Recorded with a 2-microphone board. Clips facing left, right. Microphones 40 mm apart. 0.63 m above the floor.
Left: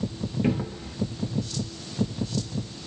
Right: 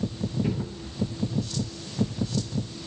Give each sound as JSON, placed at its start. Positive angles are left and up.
{"t": 0.4, "sound": "a cupboard door", "side_deg": 50, "distance_m": 1.0}